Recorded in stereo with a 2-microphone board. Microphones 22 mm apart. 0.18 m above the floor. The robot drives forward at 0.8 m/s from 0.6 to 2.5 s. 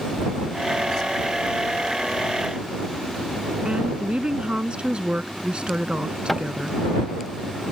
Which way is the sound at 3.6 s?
50° right (ahead or behind).